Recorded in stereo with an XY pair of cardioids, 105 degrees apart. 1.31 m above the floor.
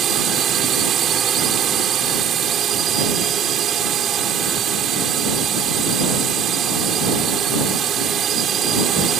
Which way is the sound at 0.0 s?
60° right.